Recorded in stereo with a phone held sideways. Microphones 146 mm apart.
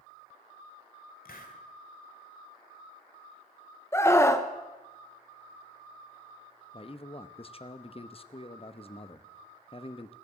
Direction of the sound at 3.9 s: 20° left (ahead or behind).